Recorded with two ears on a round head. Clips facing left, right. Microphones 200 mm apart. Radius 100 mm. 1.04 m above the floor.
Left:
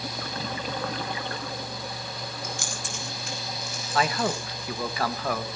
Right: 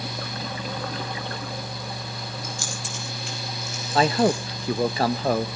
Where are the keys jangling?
55° left (ahead or behind), 5 m; by 4.4 s 20° left (ahead or behind), 6 m.